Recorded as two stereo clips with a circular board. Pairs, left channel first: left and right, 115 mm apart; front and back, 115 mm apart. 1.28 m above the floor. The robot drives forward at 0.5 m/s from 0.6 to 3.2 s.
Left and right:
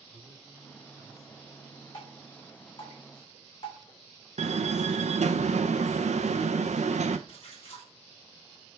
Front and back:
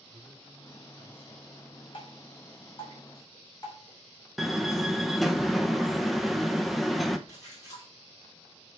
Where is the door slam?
90° right, 0.7 m.